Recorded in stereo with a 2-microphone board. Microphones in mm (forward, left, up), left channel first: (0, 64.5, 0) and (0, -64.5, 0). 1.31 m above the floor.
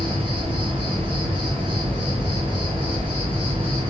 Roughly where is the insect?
Right.